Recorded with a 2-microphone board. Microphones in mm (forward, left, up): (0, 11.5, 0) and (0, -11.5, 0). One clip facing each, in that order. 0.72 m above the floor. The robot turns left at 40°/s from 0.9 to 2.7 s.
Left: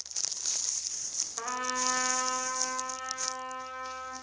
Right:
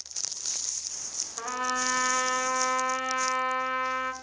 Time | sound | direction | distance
1.4 | a trumpet | 5° right | 1.2 m